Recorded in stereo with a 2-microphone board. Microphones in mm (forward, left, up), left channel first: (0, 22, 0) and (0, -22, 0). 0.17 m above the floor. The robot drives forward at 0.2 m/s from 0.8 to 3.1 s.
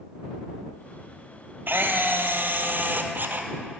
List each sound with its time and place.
1.7 s a camera shutter: 65° right (ahead or behind), 1.0 m; by 3.5 s 50° right (ahead or behind), 1.2 m